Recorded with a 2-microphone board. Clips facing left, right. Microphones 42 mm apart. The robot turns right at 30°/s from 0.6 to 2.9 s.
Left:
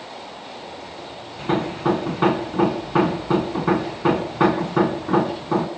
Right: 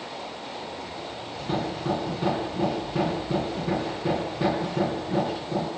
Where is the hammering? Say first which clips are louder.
Left 7 dB; 40° left, 2.5 m; by 5.7 s 85° left, 2.5 m.